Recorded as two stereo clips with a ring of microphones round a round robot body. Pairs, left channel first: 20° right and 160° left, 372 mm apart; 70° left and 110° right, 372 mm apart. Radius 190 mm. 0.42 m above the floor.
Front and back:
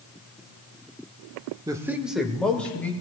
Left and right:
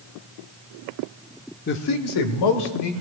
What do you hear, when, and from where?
1.7 s a man speaking: 90° left, 0.8 m; by 2.9 s 65° left, 2.0 m